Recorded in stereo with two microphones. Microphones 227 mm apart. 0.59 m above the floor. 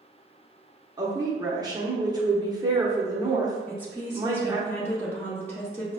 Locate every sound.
1.0 s a woman speaking: 20° right (ahead or behind), 0.8 m
3.7 s a woman speaking: 10° left (ahead or behind), 0.7 m